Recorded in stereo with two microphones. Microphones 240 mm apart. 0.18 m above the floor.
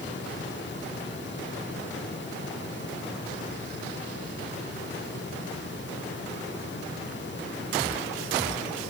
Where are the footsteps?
No footsteps in this recording.